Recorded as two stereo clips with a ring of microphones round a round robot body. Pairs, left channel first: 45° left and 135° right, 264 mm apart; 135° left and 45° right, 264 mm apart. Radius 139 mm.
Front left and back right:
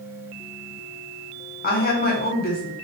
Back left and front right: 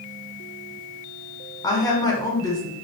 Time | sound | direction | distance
1.6 | a woman speaking | 70° left | 0.9 m